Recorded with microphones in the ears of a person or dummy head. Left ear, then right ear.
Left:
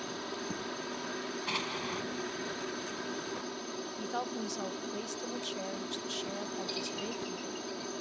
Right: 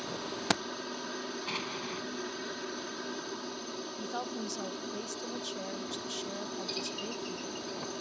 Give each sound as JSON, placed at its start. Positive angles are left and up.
{"t": 0.0, "sound": "a helicopter", "side_deg": 0}
{"t": 1.5, "sound": "an explosion", "side_deg": 5}
{"t": 4.0, "sound": "a woman speaking", "side_deg": 10}